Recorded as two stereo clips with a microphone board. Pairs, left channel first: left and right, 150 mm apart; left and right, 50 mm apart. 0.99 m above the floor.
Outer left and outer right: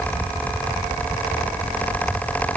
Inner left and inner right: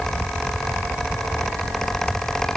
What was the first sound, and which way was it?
Only background noise.